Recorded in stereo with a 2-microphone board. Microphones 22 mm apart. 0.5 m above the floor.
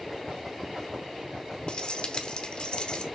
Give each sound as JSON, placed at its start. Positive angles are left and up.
{"t": 1.7, "sound": "keys jangling", "side_deg": 45, "distance_m": 0.8}